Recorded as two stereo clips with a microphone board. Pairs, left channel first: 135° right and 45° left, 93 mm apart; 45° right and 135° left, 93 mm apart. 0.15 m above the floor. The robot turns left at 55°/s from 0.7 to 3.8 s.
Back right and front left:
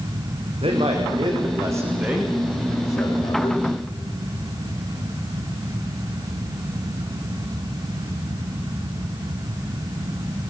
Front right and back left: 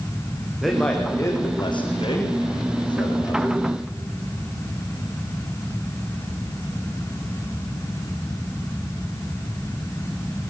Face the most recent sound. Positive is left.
turn(degrees=-125)